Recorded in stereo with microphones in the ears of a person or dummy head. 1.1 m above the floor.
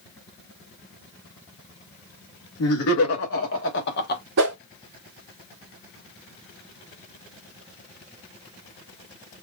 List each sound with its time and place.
2.6 s laughter: 75° left (ahead or behind), 2.5 m; by 4.2 s 45° left (ahead or behind), 1.3 m
4.4 s a whoosh: 55° right (ahead or behind), 1.2 m